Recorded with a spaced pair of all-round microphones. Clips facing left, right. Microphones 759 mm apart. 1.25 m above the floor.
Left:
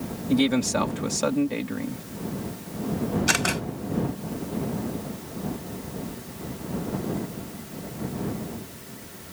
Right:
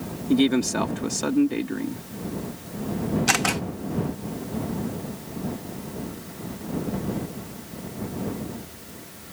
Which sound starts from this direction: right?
A camera shutter, at 3.3 s.